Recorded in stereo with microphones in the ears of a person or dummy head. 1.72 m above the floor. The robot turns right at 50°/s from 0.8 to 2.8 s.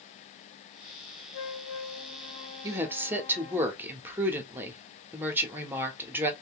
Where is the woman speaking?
25° right (ahead or behind), 0.9 m; by 6.3 s 15° right (ahead or behind), 0.9 m.